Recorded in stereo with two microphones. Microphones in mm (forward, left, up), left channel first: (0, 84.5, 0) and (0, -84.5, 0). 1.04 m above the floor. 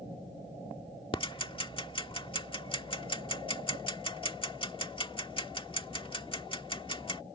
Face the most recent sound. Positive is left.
turn(degrees=30)  # may be behind; listen again after turning